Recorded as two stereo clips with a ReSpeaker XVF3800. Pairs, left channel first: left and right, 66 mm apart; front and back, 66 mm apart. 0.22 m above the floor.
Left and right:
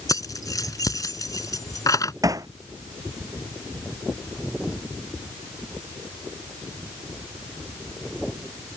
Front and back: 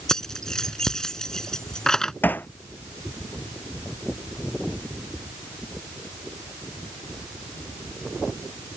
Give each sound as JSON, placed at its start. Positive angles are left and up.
{"t": 0.1, "sound": "keys jangling", "azimuth_deg": 80}
{"t": 2.2, "sound": "hammering", "azimuth_deg": -60}